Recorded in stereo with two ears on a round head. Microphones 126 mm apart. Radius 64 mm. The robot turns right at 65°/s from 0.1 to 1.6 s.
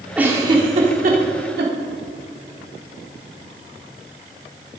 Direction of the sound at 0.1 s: 10° right (ahead or behind).